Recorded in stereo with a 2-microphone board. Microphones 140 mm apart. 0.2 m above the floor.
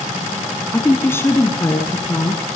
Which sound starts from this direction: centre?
A woman speaking, at 0.7 s.